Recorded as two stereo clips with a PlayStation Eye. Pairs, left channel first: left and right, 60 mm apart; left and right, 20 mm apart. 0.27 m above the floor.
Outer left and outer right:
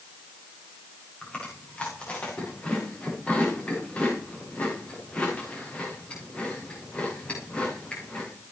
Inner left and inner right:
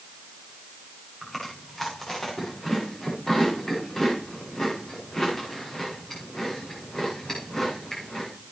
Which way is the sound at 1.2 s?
20° left (ahead or behind).